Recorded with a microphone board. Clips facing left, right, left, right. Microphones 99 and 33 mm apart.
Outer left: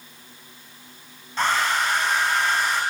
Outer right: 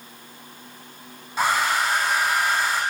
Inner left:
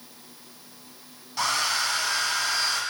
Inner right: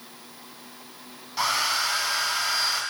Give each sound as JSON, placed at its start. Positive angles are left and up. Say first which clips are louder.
{"t": 1.4, "sound": "a hair dryer", "louder": "outer right 1 dB, inner right 1 dB", "side_deg": -10, "distance_m": 0.6}